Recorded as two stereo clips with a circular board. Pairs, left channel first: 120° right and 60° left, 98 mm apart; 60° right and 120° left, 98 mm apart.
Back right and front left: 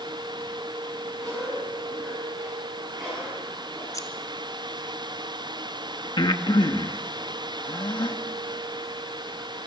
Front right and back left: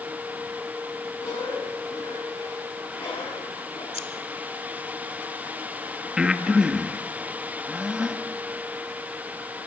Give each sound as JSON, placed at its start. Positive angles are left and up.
{"t": 1.2, "sound": "a cough", "azimuth_deg": -30, "distance_m": 9.5}
{"t": 3.9, "sound": "scissors", "azimuth_deg": -65, "distance_m": 2.5}
{"t": 6.2, "sound": "breathing", "azimuth_deg": -160, "distance_m": 1.4}